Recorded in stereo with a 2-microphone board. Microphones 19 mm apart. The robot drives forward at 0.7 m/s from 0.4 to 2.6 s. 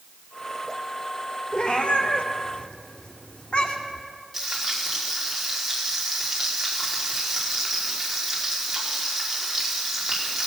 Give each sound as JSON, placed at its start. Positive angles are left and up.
{"t": 1.5, "sound": "a cat meowing", "side_deg": 65, "distance_m": 2.0}
{"t": 4.3, "sound": "frying", "side_deg": 0, "distance_m": 4.5}